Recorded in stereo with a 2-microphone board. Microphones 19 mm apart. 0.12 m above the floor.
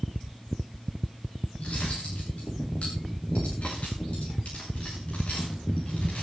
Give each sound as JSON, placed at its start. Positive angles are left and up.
{"t": 1.6, "sound": "cutlery clinking", "side_deg": 75, "distance_m": 7.0}